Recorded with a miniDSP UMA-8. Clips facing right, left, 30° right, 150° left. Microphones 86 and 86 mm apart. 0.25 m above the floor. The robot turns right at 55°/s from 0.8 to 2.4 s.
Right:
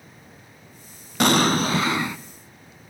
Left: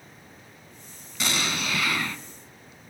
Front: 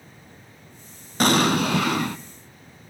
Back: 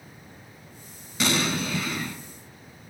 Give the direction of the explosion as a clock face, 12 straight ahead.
2 o'clock.